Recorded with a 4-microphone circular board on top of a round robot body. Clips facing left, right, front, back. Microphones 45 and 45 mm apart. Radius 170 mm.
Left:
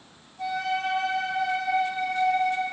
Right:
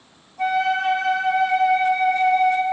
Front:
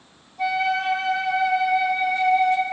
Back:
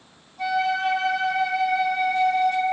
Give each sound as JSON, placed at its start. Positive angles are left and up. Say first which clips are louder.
{"t": 0.4, "sound": "a flute", "louder": "right 7 dB, front 1 dB", "azimuth_deg": -90, "distance_m": 2.5}